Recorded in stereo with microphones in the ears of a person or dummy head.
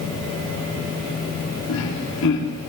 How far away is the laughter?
About 3 m.